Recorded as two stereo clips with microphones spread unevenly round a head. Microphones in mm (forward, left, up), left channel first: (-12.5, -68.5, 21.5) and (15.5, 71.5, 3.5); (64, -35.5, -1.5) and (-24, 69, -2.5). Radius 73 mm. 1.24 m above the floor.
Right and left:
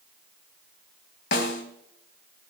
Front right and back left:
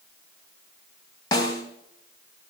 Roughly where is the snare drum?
Behind right.